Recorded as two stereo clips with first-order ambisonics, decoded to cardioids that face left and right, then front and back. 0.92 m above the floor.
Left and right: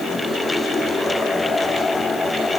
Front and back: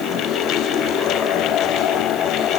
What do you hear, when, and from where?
Only background noise.